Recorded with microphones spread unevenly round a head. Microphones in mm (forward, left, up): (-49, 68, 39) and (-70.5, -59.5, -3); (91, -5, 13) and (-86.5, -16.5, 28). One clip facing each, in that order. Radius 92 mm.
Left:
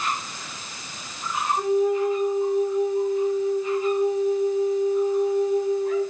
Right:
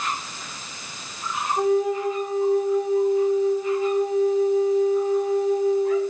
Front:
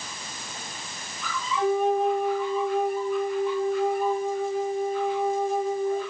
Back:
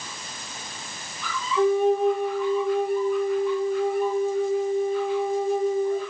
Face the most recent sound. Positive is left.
turn(degrees=-120)